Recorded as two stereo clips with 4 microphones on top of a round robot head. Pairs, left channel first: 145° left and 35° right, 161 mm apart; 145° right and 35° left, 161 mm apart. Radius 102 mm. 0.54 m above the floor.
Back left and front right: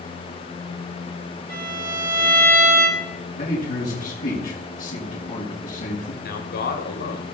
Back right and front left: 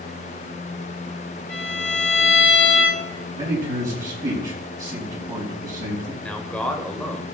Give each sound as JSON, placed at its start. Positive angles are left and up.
{"t": 1.5, "sound": "a violin", "azimuth_deg": -60, "distance_m": 9.0}
{"t": 3.4, "sound": "a man speaking", "azimuth_deg": 105, "distance_m": 5.5}
{"t": 6.2, "sound": "a man speaking", "azimuth_deg": 135, "distance_m": 2.5}